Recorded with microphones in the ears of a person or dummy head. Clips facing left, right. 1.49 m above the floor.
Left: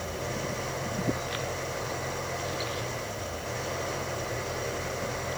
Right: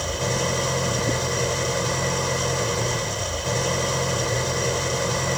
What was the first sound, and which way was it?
An engine running, 70° right (ahead or behind).